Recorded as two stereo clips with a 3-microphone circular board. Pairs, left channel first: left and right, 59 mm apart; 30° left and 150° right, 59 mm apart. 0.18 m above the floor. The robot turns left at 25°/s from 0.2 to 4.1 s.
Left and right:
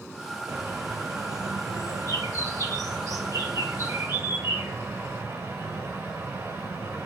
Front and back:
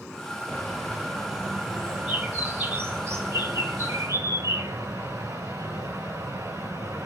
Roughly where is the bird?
Ahead right.